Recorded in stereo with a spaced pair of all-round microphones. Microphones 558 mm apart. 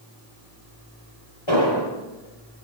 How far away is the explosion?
About 9 m.